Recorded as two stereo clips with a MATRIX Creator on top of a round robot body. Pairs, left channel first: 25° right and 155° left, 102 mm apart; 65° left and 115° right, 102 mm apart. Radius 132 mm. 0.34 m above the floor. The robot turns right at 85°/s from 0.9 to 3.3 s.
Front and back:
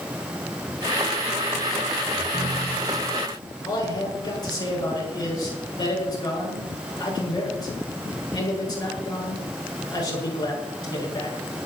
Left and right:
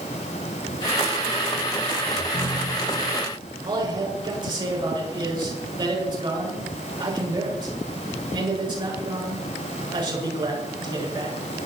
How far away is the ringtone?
About 7 m.